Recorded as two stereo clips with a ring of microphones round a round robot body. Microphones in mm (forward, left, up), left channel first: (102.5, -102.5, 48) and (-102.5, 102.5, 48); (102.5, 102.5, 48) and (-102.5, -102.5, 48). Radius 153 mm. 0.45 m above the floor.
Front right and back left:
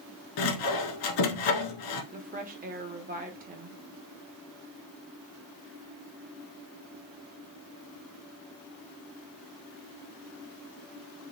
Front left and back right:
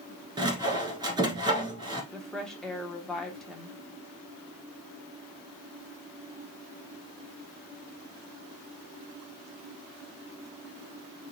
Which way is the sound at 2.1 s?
130° left.